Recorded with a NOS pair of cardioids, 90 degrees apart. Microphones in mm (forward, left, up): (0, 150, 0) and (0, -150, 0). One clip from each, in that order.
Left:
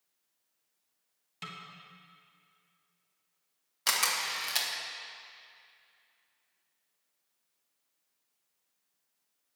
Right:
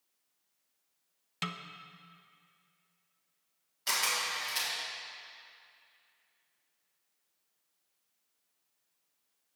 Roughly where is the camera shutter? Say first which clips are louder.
Left 2 dB; ahead left.